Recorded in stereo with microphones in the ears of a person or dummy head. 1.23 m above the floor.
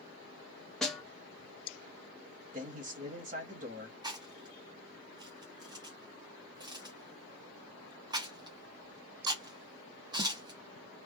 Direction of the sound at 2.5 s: 35° right (ahead or behind).